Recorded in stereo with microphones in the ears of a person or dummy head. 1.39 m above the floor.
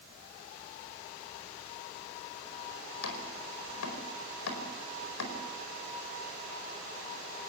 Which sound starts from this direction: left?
Chopping, at 3.0 s.